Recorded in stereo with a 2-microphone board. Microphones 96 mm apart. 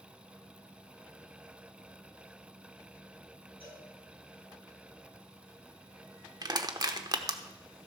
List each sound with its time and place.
3.6 s a cowbell: 80° left, 8 m
6.4 s crushing: 45° right (ahead or behind), 1.0 m